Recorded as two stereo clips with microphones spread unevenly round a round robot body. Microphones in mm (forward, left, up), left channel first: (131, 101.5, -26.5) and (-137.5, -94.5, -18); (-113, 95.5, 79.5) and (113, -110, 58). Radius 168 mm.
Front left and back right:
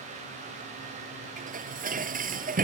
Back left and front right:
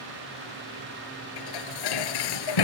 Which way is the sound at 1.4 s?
150° left.